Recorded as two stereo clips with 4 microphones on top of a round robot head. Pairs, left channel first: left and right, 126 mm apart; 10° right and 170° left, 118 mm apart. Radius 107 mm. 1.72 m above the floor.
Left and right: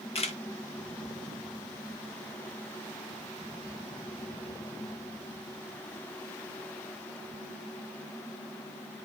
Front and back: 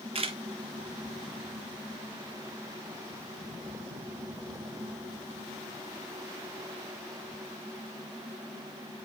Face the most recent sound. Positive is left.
turn(degrees=130)